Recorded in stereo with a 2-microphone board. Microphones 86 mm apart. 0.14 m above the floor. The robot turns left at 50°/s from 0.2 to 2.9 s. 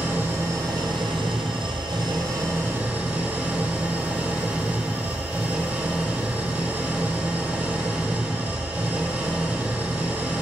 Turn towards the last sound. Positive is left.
turn(degrees=-165)